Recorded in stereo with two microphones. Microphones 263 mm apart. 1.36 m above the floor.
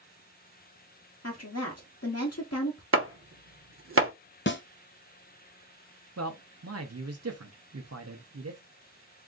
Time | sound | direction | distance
1.2 | a woman speaking | 60° left (ahead or behind) | 0.9 m
2.9 | chopping | 50° right (ahead or behind) | 0.7 m
4.5 | a snare drum | 45° left (ahead or behind) | 0.5 m
6.2 | a man speaking | 60° right (ahead or behind) | 0.7 m